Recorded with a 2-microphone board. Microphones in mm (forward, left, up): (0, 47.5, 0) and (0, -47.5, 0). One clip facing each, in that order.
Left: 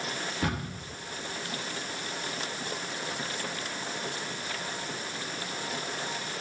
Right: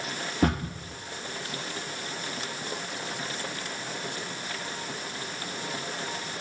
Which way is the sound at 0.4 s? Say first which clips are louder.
Right 8 dB; 30° right (ahead or behind).